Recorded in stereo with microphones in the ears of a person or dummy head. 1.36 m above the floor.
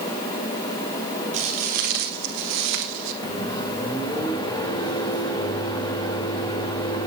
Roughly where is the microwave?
Left.